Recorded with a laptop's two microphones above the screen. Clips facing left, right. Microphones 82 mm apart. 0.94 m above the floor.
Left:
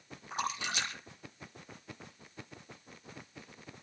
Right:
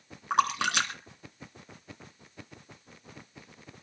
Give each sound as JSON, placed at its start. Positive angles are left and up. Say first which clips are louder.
{"t": 0.3, "sound": "a splash", "louder": "right 10 dB", "side_deg": -70, "distance_m": 3.5}